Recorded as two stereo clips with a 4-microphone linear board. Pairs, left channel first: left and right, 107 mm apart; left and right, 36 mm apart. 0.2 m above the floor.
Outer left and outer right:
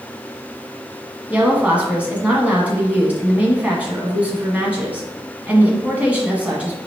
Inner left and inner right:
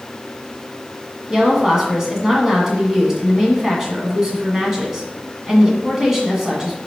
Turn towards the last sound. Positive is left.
turn(degrees=-15)  # may be behind; listen again after turning